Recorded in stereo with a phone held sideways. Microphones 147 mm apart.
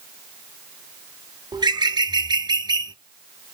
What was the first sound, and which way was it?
A bird, 30° right (ahead or behind).